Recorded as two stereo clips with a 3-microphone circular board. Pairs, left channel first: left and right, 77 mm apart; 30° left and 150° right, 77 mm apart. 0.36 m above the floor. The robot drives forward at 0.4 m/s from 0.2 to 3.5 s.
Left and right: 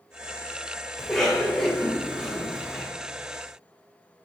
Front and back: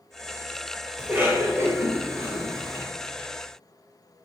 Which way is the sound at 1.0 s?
170° left.